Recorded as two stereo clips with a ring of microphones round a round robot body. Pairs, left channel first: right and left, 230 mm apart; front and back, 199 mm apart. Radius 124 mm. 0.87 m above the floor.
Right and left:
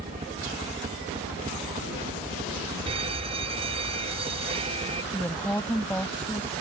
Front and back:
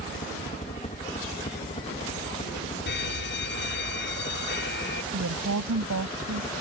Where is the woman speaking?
175° right.